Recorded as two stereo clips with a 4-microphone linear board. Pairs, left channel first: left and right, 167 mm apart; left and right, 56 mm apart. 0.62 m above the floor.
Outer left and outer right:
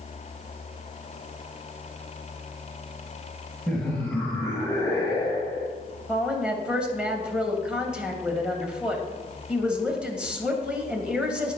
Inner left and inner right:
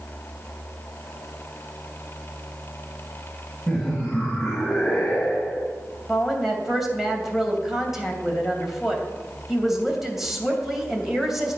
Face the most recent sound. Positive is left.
turn(degrees=-5)  # may be behind; listen again after turning